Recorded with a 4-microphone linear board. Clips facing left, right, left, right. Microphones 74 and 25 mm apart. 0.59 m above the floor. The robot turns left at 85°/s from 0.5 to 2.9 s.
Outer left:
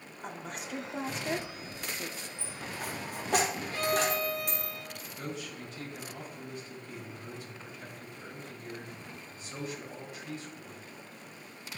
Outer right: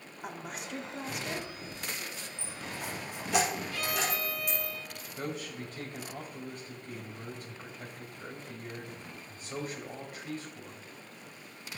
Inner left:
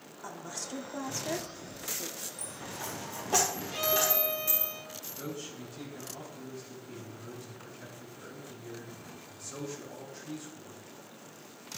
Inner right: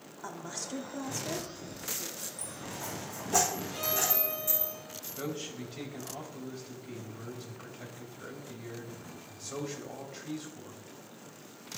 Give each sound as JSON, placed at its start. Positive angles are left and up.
{"t": 0.2, "sound": "a woman speaking", "azimuth_deg": -170, "distance_m": 1.3}
{"t": 2.4, "sound": "a dropped coin", "side_deg": 5, "distance_m": 5.0}
{"t": 3.7, "sound": "a violin", "side_deg": 35, "distance_m": 1.6}
{"t": 5.2, "sound": "a man speaking", "side_deg": -50, "distance_m": 3.5}